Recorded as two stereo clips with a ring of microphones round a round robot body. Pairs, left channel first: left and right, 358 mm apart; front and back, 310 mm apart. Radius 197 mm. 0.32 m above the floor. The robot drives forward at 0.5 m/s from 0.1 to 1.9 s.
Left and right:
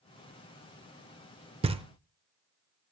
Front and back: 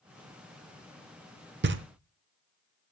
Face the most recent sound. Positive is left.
turn(degrees=-160)